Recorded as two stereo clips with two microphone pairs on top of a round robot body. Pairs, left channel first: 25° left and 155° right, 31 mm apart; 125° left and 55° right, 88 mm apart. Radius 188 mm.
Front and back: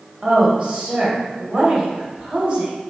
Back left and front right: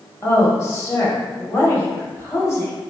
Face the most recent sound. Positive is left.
turn(degrees=165)